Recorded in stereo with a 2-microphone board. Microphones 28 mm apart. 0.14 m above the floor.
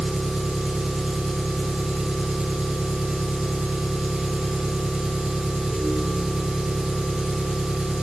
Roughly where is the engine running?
Right.